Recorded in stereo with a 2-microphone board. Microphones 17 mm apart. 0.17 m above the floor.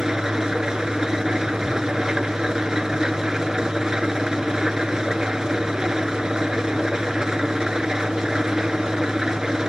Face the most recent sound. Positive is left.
turn(degrees=-35)  # may be behind; listen again after turning